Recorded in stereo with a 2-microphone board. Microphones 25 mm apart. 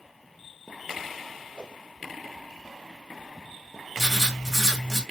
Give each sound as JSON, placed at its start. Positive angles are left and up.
{"t": 1.5, "sound": "a whoosh", "side_deg": 50, "distance_m": 3.0}
{"t": 4.0, "sound": "writing", "side_deg": -5, "distance_m": 2.0}